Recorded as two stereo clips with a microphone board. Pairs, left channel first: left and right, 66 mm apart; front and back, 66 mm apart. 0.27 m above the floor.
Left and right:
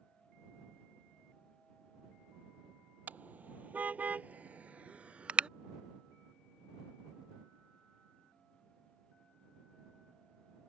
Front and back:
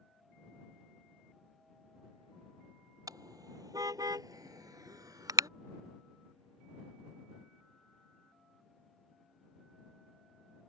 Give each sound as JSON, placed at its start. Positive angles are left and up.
{"t": 3.1, "sound": "a car horn", "azimuth_deg": -155}